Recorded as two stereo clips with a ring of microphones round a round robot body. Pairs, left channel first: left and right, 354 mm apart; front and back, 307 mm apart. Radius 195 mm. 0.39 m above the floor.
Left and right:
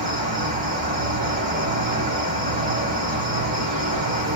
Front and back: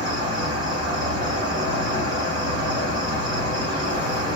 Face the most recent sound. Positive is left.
turn(degrees=-125)